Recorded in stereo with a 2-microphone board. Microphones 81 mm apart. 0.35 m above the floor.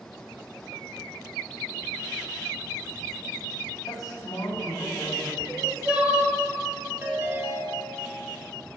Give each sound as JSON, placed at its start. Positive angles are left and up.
{"t": 3.9, "sound": "a man speaking", "side_deg": 45, "distance_m": 2.5}
{"t": 5.5, "sound": "crying", "side_deg": -20, "distance_m": 3.0}
{"t": 7.0, "sound": "a ringtone", "side_deg": -25, "distance_m": 2.0}